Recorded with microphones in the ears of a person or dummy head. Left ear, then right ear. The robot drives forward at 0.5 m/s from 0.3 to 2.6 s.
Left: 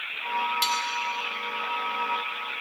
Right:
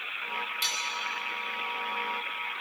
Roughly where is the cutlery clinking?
Centre.